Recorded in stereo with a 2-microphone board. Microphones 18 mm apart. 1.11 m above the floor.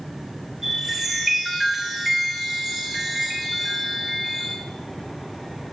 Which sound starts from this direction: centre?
A chime, at 0.6 s.